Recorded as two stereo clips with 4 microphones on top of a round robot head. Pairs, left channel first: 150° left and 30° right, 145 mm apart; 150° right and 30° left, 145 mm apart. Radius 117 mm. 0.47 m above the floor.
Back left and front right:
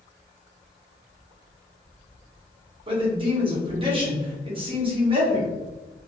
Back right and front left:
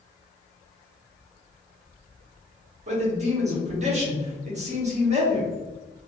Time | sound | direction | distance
2.9 | a man speaking | 10° left | 1.8 m